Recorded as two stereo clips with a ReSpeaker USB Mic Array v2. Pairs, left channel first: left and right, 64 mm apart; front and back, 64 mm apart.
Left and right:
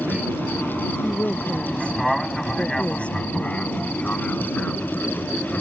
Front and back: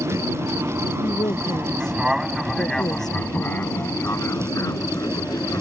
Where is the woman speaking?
15° left.